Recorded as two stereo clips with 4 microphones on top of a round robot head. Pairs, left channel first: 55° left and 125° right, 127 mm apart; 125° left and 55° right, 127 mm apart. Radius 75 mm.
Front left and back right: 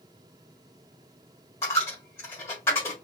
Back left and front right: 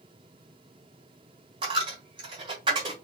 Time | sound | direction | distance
1.6 | a dropped coin | 10° right | 1.2 m